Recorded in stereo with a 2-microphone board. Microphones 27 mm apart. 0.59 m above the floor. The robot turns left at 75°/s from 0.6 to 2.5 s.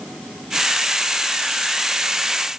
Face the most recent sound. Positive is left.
No sound to turn to.